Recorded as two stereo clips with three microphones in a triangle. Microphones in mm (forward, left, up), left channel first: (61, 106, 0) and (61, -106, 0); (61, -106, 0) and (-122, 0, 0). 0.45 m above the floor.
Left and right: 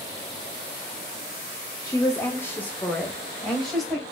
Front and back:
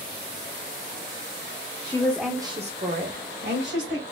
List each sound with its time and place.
1.8 s a woman speaking: 20° left, 1.0 m; by 4.0 s straight behind, 2.5 m